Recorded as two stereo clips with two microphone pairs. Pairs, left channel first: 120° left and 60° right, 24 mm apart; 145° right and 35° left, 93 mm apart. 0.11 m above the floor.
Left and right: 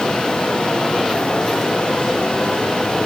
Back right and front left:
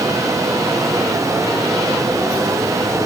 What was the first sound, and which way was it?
Only background noise.